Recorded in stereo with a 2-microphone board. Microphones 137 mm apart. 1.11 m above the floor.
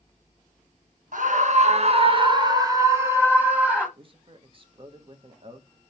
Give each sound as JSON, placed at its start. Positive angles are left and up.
{"t": 1.1, "sound": "a scream", "side_deg": -65, "distance_m": 1.3}
{"t": 4.0, "sound": "a man speaking", "side_deg": -40, "distance_m": 1.3}